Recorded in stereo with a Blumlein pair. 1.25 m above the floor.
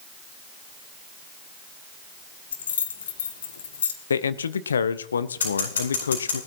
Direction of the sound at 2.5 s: 65° left.